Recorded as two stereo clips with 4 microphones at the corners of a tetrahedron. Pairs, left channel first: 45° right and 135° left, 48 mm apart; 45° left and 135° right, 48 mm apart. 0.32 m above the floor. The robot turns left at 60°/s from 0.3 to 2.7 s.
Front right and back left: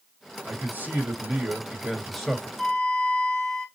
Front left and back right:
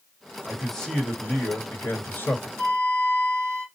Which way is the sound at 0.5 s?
145° left.